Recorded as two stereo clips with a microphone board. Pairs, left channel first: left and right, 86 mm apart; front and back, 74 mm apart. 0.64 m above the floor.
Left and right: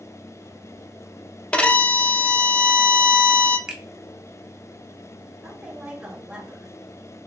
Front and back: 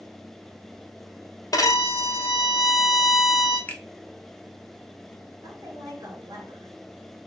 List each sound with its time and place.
1.5 s a violin: 15° left, 0.5 m
3.7 s a finger snap: 25° right, 0.8 m
5.4 s a woman speaking: 165° right, 1.7 m